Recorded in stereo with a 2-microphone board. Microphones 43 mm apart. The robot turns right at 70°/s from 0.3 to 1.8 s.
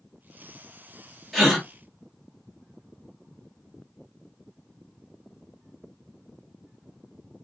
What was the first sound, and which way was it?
A gasp, 5° left (ahead or behind).